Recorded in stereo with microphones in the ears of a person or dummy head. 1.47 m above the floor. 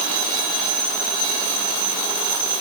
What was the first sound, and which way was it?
Only background noise.